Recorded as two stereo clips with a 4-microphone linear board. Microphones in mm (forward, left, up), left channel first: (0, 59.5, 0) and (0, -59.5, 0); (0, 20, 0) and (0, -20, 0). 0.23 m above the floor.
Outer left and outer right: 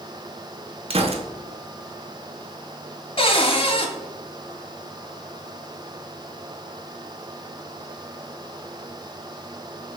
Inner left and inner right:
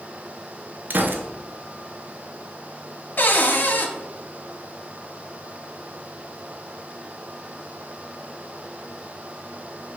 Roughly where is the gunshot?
Right.